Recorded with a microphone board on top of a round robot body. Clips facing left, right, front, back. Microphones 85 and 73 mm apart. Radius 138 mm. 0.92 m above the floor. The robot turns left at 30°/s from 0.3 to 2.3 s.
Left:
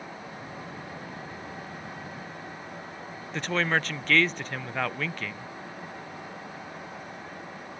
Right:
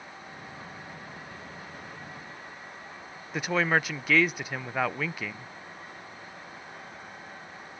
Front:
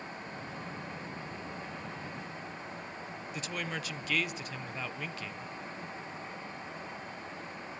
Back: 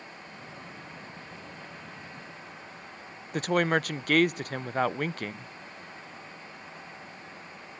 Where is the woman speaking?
170° right, 0.5 m.